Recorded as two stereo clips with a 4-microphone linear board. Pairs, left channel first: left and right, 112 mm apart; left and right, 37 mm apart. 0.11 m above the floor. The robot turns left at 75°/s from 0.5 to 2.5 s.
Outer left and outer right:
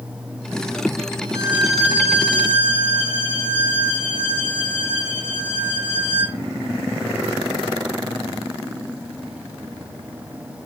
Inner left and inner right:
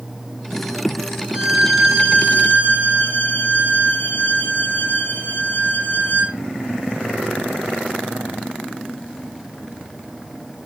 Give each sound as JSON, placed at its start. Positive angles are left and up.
{"t": 1.3, "sound": "a violin", "azimuth_deg": -155, "distance_m": 5.0}